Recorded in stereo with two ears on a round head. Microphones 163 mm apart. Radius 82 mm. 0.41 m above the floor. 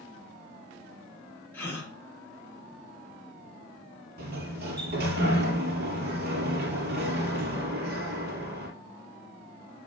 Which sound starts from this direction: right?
A sliding door, at 4.2 s.